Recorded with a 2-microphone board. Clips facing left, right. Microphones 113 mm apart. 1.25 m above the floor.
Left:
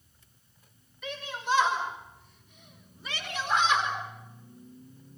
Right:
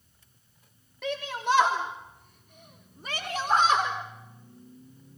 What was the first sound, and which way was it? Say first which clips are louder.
A shout: right 5 dB; 70° right (ahead or behind).